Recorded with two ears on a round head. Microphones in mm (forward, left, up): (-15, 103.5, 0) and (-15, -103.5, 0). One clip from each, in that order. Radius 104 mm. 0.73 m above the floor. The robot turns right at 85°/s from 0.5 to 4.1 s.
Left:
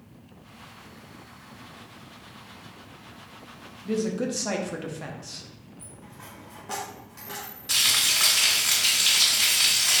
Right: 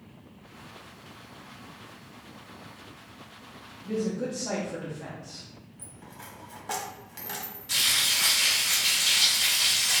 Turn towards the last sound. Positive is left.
turn(degrees=25)  # may be behind; listen again after turning